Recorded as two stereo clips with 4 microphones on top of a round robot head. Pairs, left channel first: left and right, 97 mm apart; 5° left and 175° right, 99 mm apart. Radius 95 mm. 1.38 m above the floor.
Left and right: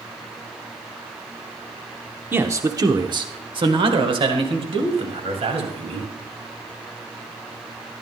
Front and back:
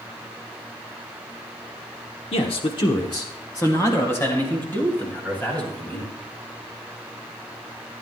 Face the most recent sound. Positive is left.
turn(degrees=-75)